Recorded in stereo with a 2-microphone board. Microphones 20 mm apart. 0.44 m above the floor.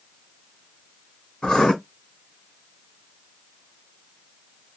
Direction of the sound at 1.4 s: 60° left (ahead or behind).